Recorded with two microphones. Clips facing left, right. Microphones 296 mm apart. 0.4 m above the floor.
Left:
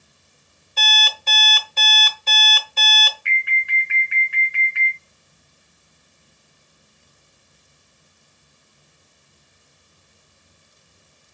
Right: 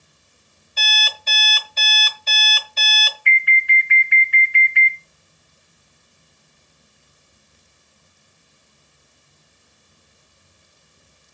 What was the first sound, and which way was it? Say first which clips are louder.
An alarm clock: left 4 dB; 60° left (ahead or behind).